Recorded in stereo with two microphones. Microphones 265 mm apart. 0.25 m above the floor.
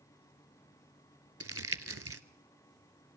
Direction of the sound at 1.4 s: 60° right (ahead or behind).